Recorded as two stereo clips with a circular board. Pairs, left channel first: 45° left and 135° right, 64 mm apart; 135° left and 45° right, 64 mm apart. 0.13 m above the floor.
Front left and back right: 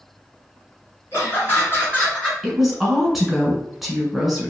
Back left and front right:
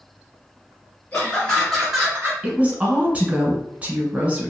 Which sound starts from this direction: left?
Laughter, at 1.1 s.